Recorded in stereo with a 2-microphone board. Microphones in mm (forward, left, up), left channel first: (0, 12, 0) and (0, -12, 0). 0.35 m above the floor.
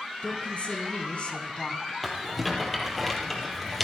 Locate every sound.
0.2 s a woman speaking: 65° left (ahead or behind), 4 m; by 1.9 s 40° left (ahead or behind), 2.5 m
2.0 s a rattle: 5° left (ahead or behind), 4.5 m